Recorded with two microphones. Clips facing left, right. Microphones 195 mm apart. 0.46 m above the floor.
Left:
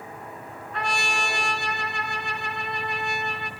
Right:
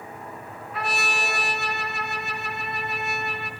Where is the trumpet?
5° right (ahead or behind), 3.5 m.